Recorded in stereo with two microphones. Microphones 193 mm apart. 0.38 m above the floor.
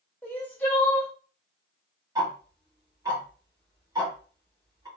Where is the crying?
10° left (ahead or behind), 1.6 m.